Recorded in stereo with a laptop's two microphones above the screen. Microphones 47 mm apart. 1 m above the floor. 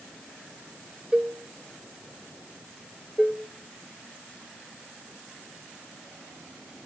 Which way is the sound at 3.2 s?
10° left (ahead or behind).